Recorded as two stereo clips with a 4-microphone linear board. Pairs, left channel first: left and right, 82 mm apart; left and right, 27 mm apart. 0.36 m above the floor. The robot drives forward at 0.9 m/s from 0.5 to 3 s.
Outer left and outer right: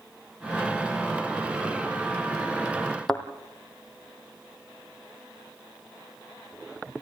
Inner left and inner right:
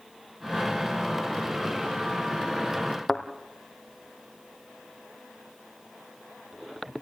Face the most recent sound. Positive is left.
turn(degrees=5)  # may be behind; listen again after turning